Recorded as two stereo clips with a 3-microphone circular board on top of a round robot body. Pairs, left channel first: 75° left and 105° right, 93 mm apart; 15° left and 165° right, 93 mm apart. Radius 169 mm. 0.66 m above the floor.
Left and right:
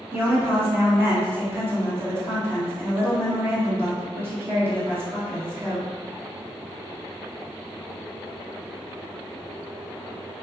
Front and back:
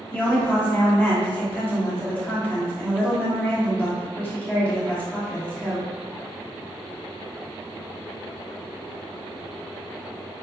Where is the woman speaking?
50° right, 1.2 m.